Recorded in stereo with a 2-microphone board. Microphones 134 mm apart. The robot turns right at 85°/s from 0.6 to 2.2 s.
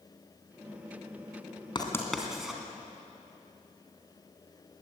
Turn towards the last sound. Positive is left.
turn(degrees=0)  # may be behind; listen again after turning